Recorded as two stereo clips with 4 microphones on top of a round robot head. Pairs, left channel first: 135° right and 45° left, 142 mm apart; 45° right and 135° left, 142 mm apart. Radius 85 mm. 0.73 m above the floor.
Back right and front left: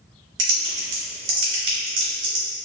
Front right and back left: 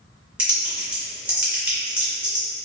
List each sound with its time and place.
0.4 s typing on a keyboard: 50° left, 0.6 m